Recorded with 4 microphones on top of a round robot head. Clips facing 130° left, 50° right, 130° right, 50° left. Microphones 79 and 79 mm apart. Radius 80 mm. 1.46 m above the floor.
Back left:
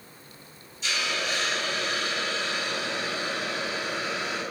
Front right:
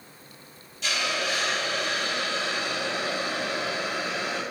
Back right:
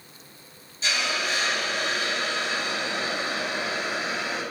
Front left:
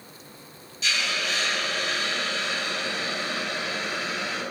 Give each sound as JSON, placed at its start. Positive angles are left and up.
{"t": 0.8, "sound": "a hiss", "azimuth_deg": -70, "distance_m": 3.5}